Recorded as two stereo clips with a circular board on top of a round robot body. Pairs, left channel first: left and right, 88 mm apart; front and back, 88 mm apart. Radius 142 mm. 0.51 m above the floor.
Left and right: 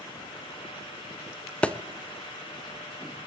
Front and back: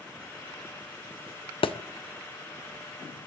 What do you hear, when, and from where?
1.6 s a thud: 15° left, 1.0 m